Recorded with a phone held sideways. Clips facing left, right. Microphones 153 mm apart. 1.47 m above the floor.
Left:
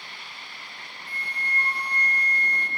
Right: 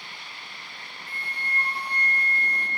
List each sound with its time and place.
1.1 s a flute: 25° right (ahead or behind), 4 m